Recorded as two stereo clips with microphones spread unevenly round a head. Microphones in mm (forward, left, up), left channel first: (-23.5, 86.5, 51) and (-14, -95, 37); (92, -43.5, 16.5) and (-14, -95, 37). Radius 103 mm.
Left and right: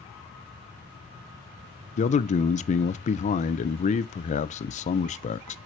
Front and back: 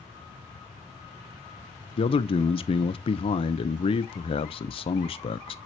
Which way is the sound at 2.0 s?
45° left.